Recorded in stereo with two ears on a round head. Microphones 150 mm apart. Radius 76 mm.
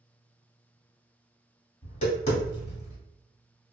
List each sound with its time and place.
1.8 s tapping: 35° left (ahead or behind), 1.4 m